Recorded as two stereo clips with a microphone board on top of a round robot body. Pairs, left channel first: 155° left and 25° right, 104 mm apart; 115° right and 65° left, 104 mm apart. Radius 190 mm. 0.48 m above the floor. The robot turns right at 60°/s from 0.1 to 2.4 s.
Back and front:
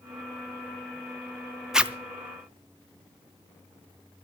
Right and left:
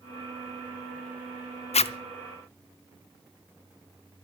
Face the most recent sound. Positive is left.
turn(degrees=-70)